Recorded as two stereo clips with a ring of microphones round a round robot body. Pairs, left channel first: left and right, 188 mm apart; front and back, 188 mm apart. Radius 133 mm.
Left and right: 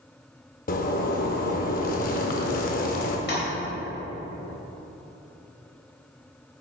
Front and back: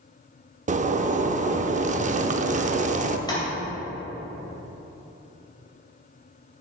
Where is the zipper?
135° left, 0.6 m.